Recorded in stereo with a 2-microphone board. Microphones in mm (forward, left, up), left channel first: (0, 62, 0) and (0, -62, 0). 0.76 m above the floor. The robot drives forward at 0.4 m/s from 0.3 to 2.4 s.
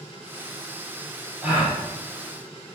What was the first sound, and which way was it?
A gasp, 15° right (ahead or behind).